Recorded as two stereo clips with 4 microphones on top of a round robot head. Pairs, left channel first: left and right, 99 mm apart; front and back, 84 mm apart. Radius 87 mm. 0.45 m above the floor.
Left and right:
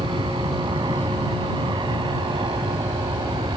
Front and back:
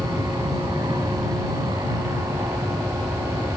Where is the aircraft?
125° right.